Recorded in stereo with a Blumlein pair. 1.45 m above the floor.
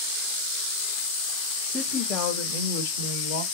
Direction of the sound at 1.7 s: 15° left.